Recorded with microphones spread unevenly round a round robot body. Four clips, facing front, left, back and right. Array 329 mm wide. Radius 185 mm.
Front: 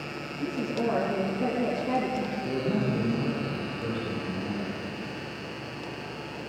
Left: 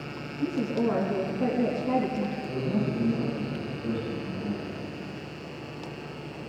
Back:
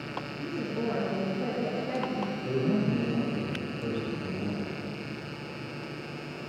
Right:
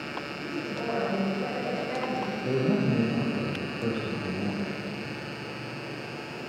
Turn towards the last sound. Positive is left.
turn(degrees=-70)